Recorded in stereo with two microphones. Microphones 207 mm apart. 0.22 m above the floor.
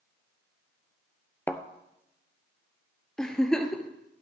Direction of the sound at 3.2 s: 5° left (ahead or behind).